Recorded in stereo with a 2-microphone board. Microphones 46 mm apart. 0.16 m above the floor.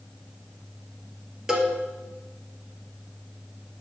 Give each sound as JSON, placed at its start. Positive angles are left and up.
{"t": 1.5, "sound": "a cowbell", "side_deg": -10, "distance_m": 1.8}